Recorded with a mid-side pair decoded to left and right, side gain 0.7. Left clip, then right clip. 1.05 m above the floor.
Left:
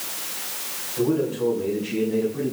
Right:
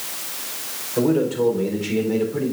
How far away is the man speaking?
About 4 m.